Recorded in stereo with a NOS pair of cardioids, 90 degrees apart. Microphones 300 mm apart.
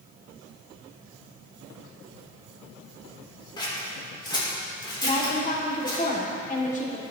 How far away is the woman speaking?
About 2.5 m.